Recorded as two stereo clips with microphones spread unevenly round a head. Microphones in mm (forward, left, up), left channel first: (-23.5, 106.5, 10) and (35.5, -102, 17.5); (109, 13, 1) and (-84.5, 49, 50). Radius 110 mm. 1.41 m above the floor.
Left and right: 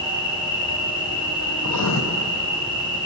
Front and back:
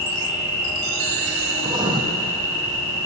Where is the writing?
110° left, 0.6 m.